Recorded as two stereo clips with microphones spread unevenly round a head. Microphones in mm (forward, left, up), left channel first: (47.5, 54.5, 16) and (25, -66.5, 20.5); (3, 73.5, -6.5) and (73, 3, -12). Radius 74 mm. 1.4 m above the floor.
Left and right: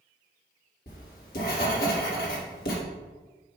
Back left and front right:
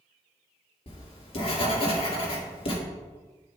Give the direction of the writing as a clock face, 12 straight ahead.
8 o'clock.